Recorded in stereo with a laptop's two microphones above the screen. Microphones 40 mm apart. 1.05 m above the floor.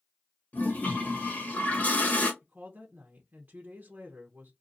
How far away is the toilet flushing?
About 1.1 m.